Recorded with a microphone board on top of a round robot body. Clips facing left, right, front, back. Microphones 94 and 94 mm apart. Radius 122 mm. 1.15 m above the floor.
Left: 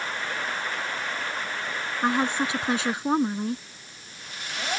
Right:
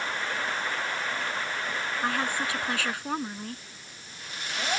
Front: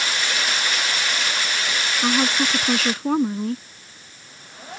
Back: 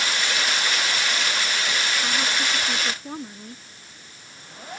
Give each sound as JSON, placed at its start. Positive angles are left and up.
{"t": 2.0, "sound": "a woman speaking", "azimuth_deg": 20}